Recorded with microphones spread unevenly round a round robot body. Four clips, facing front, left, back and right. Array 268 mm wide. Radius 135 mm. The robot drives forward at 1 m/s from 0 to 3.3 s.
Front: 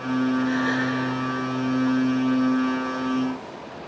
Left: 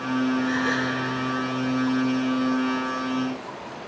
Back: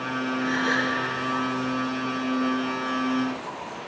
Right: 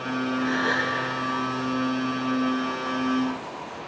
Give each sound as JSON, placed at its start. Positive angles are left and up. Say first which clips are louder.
{"t": 0.4, "sound": "a gasp", "louder": "left 1 dB, front 2 dB", "azimuth_deg": -115, "distance_m": 7.5}